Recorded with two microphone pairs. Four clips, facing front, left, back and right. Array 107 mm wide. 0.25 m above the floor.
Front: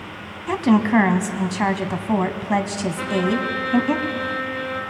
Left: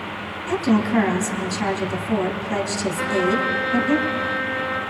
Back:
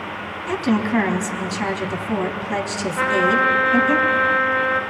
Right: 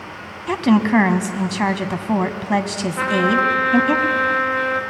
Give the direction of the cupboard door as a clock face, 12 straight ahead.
No cupboard door in this recording.